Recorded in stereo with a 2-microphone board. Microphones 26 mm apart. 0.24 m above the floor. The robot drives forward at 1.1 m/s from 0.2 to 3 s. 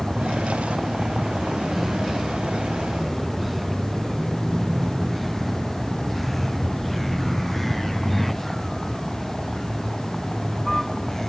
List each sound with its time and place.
0.0 s a vehicle: 10° right (ahead or behind); by 11.3 s 15° left (ahead or behind)